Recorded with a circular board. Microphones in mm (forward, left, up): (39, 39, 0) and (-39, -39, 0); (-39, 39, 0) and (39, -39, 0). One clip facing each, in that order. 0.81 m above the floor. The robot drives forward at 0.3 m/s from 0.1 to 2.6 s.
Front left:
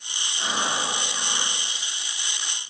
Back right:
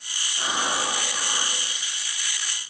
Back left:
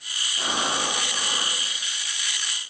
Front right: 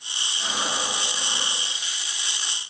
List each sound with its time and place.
0.4 s breathing: 150° left, 2 m; by 1.6 s 155° left, 2.5 m